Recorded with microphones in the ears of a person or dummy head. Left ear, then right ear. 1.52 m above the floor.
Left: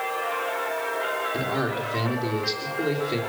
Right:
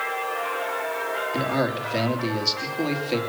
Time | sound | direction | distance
1.3 | a man speaking | 30° right (ahead or behind) | 3 m